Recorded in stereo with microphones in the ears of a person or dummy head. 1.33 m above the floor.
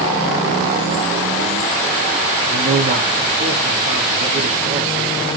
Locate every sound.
2.5 s a man speaking: 45° right (ahead or behind), 4 m